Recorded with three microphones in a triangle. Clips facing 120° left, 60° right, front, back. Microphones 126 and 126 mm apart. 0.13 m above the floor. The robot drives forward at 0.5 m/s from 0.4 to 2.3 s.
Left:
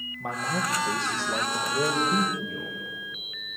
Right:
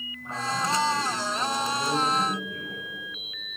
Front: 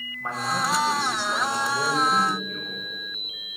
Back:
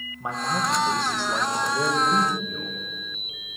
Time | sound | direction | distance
0.2 | a man speaking | 105° left | 6.5 m